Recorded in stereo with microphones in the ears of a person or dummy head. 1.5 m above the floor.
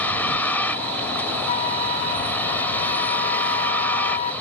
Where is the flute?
25° left (ahead or behind).